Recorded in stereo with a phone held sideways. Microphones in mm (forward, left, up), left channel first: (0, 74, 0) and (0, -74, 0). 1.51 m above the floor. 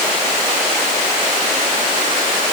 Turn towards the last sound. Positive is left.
No sound to turn to.